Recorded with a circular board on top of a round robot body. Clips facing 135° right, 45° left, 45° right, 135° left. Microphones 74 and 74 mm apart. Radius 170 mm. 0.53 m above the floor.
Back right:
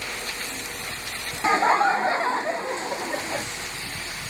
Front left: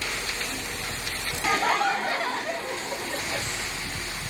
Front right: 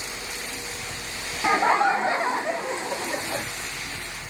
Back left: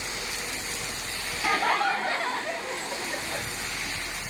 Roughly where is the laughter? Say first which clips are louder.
Back right 5 dB, front right 5 dB; right.